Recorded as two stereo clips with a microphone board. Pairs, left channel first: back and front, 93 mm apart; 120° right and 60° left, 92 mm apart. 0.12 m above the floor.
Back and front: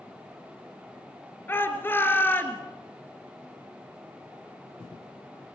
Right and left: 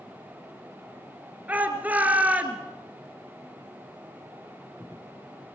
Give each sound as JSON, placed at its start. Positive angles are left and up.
{"t": 1.5, "sound": "a shout", "azimuth_deg": 125, "distance_m": 2.0}